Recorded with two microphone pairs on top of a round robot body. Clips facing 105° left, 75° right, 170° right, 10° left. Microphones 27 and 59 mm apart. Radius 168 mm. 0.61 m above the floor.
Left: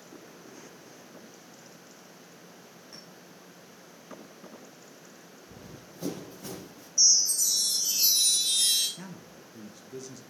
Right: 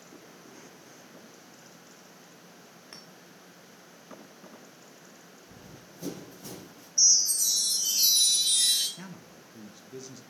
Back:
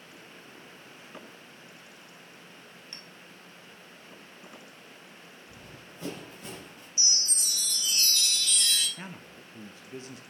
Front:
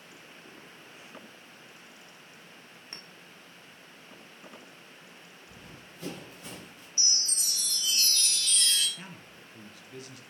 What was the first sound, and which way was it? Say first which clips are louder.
A clink: right 1 dB, front 3 dB; 50° right.